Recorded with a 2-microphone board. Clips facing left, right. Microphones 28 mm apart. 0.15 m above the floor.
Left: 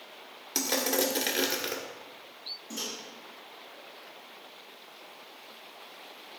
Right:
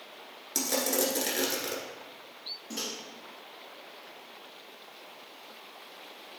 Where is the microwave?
40° right (ahead or behind), 3 m.